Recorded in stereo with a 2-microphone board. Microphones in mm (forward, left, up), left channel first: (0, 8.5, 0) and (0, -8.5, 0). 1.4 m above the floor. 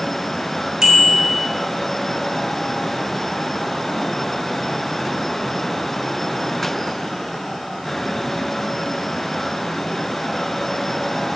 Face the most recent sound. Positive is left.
turn(degrees=-40)  # may be behind; listen again after turning